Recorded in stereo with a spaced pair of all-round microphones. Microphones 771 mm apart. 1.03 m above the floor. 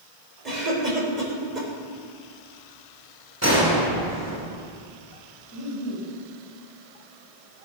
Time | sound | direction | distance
0.5 | a cough | 65° right (ahead or behind) | 4.5 m
3.4 | a gunshot | 20° right (ahead or behind) | 3 m
5.5 | laughter | 35° left (ahead or behind) | 5 m